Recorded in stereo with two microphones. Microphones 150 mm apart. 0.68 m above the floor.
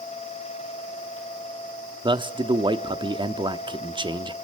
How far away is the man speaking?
About 1.0 m.